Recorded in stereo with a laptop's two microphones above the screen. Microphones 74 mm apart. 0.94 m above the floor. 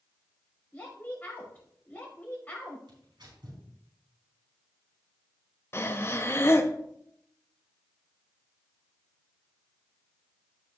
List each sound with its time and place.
0.7 s a woman speaking: 25° left (ahead or behind), 5.5 m
2.9 s tearing paper: 85° right, 4 m
5.7 s breathing: 35° left (ahead or behind), 0.6 m